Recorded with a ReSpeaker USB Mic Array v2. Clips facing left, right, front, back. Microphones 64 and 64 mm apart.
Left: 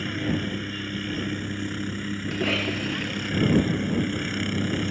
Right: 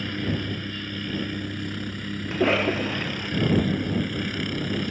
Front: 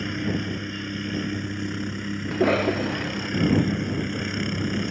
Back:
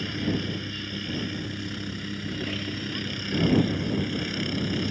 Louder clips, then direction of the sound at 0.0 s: Left 1 dB, front 1 dB; 20° left.